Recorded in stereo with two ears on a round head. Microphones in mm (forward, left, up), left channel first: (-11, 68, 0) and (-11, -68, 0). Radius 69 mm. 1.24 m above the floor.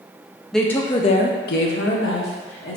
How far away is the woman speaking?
About 0.5 m.